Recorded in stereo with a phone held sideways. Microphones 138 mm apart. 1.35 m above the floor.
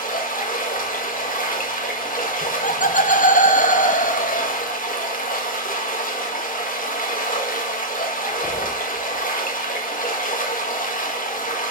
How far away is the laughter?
About 1.1 m.